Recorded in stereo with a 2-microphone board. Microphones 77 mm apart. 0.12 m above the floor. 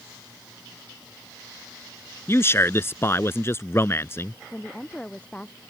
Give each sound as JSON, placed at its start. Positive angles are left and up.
{"t": 2.3, "sound": "a man speaking", "side_deg": 35}
{"t": 4.5, "sound": "a woman speaking", "side_deg": 15}